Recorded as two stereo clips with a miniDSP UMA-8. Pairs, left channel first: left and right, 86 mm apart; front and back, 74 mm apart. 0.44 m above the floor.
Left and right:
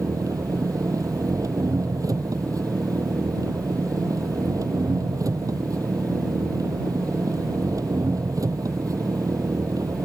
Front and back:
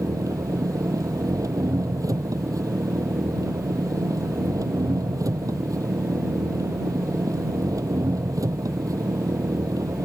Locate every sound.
0.0 s an engine running: 140° right